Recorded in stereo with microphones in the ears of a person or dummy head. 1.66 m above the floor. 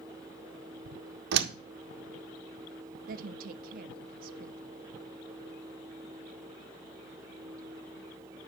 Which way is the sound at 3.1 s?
55° right (ahead or behind).